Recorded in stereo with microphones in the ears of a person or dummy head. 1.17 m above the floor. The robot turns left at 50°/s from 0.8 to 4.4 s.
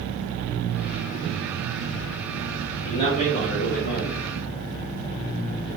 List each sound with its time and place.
2.9 s a man speaking: 155° left, 0.7 m; by 4.2 s 90° left, 0.7 m